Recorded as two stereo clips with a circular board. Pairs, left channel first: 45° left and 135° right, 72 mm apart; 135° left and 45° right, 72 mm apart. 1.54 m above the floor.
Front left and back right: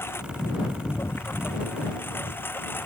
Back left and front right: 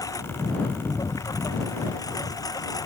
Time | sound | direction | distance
0.0 | a lawn mower | 100° left | ?